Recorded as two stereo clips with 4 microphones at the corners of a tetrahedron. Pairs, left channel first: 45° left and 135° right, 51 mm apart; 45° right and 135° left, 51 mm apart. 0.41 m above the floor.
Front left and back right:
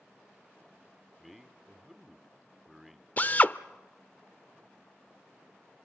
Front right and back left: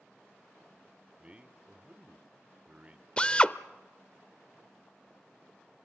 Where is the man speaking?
140° left, 0.8 m.